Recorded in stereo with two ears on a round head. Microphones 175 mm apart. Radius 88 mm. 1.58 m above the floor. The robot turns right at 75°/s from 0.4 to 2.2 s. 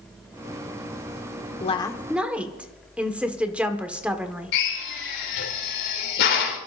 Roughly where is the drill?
Left.